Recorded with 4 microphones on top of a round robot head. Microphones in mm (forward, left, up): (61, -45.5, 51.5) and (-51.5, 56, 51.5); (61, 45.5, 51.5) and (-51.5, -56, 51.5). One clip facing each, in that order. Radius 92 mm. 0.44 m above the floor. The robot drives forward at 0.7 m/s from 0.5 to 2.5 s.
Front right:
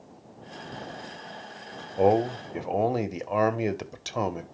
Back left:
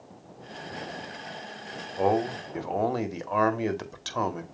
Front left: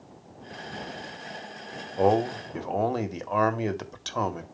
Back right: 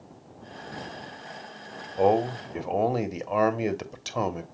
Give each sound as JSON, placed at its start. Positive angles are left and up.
{"t": 2.0, "sound": "a man speaking", "azimuth_deg": -50, "distance_m": 1.5}